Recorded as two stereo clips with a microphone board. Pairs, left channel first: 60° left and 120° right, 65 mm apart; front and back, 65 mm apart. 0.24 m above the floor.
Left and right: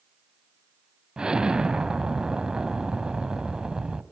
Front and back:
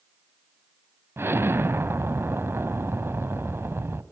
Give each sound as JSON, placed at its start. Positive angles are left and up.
{"t": 1.2, "sound": "an explosion", "azimuth_deg": 170, "distance_m": 1.1}